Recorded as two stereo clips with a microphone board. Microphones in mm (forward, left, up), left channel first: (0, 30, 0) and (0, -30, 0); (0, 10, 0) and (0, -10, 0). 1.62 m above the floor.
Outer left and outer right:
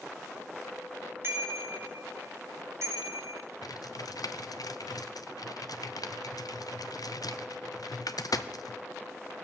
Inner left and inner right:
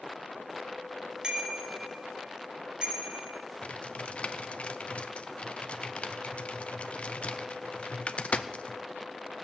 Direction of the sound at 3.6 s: 80° left.